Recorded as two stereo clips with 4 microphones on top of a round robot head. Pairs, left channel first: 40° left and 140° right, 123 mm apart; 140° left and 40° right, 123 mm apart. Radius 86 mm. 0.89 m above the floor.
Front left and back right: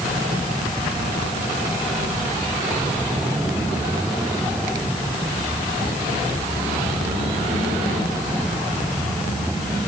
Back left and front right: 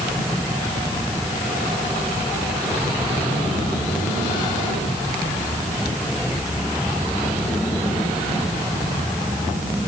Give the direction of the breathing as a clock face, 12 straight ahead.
I don't hear breathing.